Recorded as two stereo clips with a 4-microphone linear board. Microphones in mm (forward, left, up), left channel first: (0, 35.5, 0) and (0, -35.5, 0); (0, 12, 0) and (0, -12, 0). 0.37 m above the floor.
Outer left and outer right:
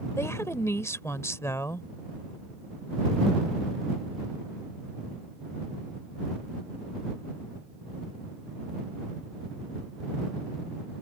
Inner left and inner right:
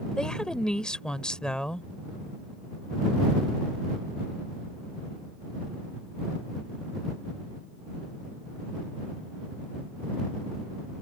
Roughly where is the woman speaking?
Left.